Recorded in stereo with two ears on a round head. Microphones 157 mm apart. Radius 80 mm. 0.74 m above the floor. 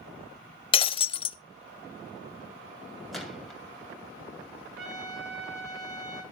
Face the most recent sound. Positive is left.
turn(degrees=-75)  # may be behind; listen again after turning